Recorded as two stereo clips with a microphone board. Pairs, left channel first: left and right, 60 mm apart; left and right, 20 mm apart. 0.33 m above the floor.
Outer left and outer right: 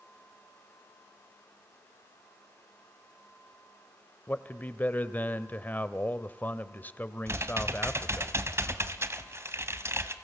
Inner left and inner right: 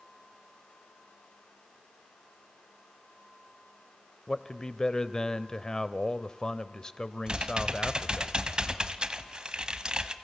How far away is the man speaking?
About 1.0 m.